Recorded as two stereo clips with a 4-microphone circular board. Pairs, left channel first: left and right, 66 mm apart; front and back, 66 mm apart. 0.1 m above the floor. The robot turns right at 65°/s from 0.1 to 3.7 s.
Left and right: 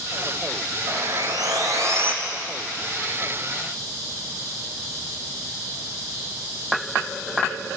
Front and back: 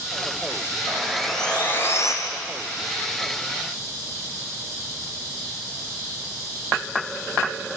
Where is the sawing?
115° right, 2.5 m; by 2.1 s 30° right, 2.5 m.